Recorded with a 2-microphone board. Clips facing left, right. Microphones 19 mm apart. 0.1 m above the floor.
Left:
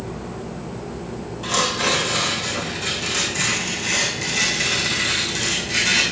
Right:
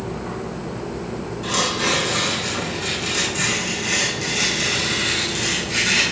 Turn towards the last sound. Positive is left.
turn(degrees=10)  # may be behind; listen again after turning